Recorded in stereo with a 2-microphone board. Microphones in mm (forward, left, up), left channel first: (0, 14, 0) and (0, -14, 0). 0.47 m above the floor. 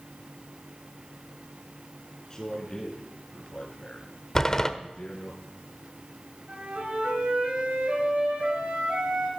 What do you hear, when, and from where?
2.3 s a man speaking: 25° left (ahead or behind), 5.5 m; by 5.3 s 40° left (ahead or behind), 6.5 m
4.3 s a door slam: 20° left (ahead or behind), 0.9 m
6.5 s a flute: 60° right (ahead or behind), 6.5 m